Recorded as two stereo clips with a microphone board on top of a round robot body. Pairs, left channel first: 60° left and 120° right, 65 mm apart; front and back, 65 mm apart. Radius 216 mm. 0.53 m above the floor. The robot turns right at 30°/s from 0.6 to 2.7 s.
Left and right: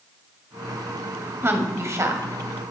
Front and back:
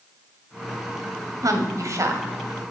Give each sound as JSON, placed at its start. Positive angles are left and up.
{"t": 1.4, "sound": "a woman speaking", "azimuth_deg": -165, "distance_m": 1.9}